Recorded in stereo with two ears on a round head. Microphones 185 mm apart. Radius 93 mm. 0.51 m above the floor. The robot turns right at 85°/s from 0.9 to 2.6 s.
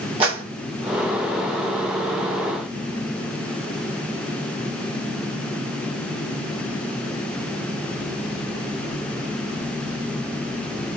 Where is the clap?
25° right (ahead or behind), 2.0 m.